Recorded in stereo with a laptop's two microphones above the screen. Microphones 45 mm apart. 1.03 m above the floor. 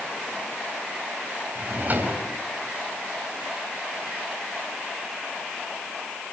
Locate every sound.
1.6 s a drawer: 40° right (ahead or behind), 4 m